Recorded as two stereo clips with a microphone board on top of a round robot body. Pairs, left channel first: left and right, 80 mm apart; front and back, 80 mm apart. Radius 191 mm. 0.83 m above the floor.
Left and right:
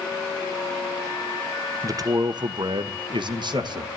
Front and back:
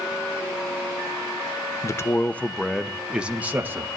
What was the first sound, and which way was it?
A man speaking, 50° right.